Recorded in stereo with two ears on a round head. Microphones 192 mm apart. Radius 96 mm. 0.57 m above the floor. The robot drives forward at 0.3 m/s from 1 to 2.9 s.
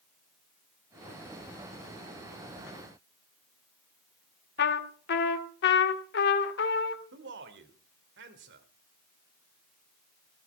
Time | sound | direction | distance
4.6 | a trumpet | 55° left (ahead or behind) | 1.6 m
7.1 | a man speaking | 55° right (ahead or behind) | 2.5 m